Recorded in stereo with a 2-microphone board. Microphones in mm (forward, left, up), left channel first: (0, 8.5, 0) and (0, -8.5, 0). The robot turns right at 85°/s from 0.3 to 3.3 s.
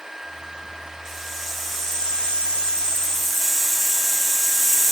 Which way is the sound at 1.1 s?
35° right.